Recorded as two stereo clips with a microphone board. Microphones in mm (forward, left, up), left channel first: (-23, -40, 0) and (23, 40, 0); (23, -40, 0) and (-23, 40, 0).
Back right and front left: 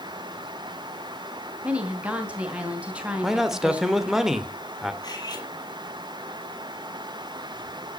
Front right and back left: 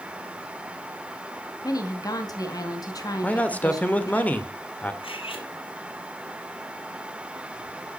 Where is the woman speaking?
15° right, 2.5 m.